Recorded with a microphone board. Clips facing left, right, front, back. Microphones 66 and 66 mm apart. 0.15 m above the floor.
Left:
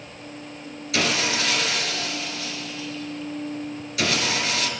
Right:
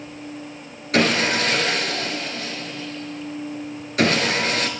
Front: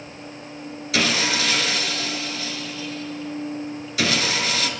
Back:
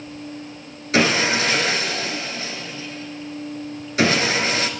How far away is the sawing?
About 0.9 m.